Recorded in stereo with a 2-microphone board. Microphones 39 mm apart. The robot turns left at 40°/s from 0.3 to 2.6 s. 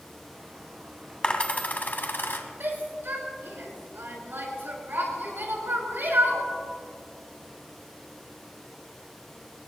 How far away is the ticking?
No ticking in this recording.